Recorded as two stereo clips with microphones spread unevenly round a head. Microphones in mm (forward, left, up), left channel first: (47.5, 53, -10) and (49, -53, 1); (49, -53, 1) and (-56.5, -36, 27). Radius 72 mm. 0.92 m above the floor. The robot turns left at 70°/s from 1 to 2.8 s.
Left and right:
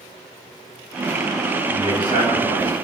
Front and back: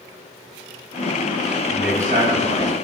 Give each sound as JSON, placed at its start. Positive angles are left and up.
{"t": 1.6, "sound": "a man speaking", "azimuth_deg": 180, "distance_m": 6.0}